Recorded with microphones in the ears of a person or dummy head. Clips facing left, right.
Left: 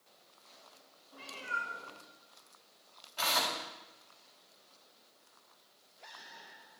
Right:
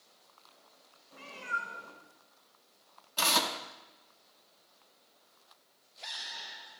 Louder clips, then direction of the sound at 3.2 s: Right 3 dB; 60° right (ahead or behind).